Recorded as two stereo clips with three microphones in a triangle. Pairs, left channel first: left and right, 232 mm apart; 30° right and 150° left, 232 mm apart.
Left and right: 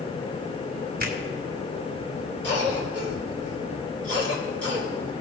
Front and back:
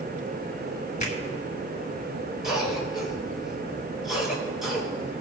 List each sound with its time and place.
1.0 s a finger snap: 70° right, 1.8 m
2.4 s a cough: 125° right, 4 m